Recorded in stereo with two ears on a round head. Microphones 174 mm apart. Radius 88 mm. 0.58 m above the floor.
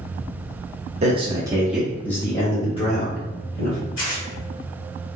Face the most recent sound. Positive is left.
turn(degrees=65)  # may be behind; listen again after turning